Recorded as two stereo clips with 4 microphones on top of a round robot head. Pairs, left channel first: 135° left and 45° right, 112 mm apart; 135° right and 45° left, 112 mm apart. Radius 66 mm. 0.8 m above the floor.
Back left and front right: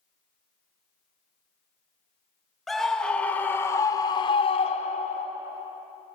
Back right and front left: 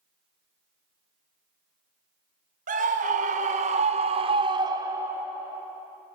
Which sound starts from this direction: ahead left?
A scream, at 2.7 s.